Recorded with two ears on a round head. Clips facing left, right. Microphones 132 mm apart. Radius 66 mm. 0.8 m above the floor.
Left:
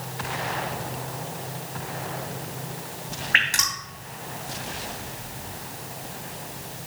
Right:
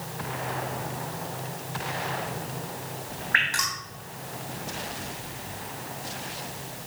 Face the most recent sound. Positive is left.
turn(degrees=30)  # may be behind; listen again after turning